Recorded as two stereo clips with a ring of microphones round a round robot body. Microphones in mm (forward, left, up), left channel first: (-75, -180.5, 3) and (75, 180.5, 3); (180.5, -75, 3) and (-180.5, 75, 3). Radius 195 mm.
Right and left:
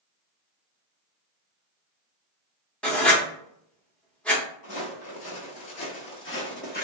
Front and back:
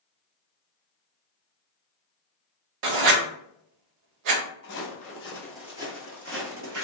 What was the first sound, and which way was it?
Writing, 160° left.